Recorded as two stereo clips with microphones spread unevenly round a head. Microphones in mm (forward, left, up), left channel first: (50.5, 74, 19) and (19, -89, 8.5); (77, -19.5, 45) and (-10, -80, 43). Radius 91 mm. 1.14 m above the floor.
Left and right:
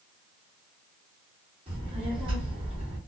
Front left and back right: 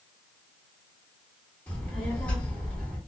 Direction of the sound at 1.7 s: 45° right.